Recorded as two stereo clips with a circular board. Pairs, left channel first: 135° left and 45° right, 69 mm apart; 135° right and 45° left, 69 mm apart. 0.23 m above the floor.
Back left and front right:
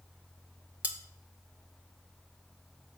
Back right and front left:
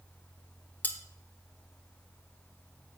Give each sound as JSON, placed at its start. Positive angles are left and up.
{"t": 0.8, "sound": "cutlery clinking", "azimuth_deg": -95, "distance_m": 0.8}